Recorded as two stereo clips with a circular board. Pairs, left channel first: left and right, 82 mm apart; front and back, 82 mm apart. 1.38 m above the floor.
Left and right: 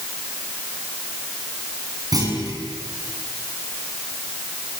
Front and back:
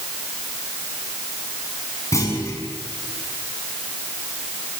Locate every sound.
2.1 s a clunk: 50° right, 6.5 m